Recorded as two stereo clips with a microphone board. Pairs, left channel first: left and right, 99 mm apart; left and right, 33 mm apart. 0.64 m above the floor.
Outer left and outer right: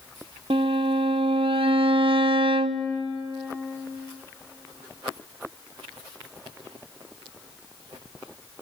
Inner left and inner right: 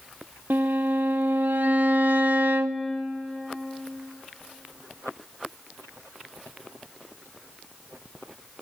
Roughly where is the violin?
Right.